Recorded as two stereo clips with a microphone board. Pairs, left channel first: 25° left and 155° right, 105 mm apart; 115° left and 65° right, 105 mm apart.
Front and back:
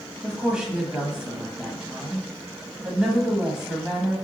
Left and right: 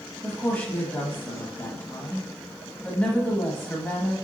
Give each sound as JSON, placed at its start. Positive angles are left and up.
{"t": 0.2, "sound": "a woman speaking", "azimuth_deg": 135, "distance_m": 1.0}